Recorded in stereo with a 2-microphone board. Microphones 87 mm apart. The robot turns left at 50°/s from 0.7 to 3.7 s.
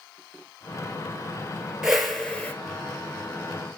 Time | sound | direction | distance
1.8 | a whoosh | 170° right | 1.2 m